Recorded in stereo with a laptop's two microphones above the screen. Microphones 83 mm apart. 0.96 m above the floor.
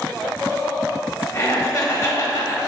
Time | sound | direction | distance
1.3 | laughter | 40° left (ahead or behind) | 1.1 m